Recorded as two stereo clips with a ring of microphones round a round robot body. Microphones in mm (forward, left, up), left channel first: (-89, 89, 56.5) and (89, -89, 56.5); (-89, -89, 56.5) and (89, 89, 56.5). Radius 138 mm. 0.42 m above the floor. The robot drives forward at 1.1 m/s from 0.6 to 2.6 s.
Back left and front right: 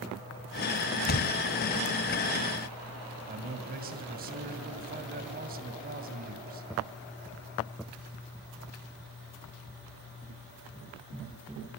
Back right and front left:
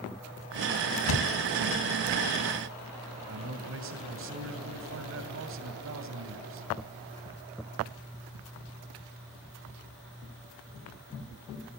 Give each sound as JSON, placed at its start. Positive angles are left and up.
{"t": 1.1, "sound": "a thud", "azimuth_deg": -170, "distance_m": 1.8}
{"t": 3.3, "sound": "a man speaking", "azimuth_deg": 10, "distance_m": 2.5}